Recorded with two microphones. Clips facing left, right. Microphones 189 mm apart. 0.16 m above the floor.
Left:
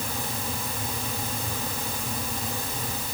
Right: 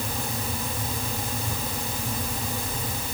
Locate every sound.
Only background noise.